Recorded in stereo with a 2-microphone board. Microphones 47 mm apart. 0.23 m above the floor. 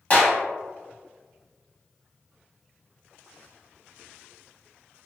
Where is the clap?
30° left (ahead or behind), 1.0 m.